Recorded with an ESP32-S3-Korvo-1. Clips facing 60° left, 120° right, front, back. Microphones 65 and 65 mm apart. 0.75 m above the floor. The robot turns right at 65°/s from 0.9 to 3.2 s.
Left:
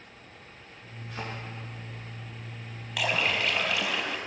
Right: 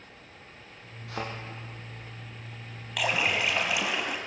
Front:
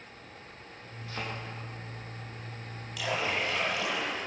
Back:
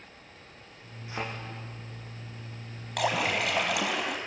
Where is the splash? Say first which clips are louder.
Even, back 4 dB; 145° left, 3.5 m; by 4.2 s 160° left, 3.5 m.